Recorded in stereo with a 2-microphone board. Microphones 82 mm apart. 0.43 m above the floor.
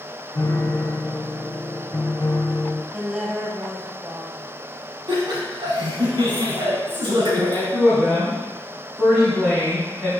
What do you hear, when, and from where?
0.3 s a piano: 40° left (ahead or behind), 0.9 m
2.9 s a woman speaking: 10° right (ahead or behind), 2 m
5.1 s laughter: 70° right (ahead or behind), 3.5 m
7.7 s a woman speaking: 10° right (ahead or behind), 3 m